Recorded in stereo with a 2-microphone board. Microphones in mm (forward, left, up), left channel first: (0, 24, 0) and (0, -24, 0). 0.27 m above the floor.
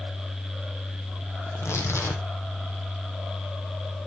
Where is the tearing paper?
75° left (ahead or behind), 1.8 m.